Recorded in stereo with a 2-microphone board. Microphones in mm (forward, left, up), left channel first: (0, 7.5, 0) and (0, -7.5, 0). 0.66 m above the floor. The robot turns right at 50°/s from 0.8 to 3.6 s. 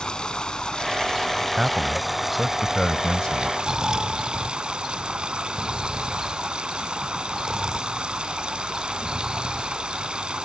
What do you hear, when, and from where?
0.0 s running water: 125° left; by 10.5 s 95° right
1.6 s a man speaking: 30° right; by 3.5 s 65° left
3.6 s snoring: 50° right (ahead or behind)